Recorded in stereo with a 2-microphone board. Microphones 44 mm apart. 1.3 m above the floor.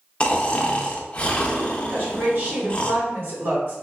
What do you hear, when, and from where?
0.2 s snoring: 25° left (ahead or behind), 0.5 m
1.9 s a woman speaking: 60° right (ahead or behind), 1.9 m